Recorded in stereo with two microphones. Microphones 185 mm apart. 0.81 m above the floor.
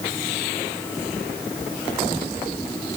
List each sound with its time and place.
Only background noise.